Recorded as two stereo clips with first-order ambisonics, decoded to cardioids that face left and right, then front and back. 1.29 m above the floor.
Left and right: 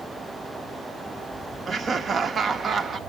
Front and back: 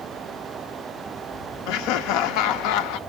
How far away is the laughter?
About 0.6 m.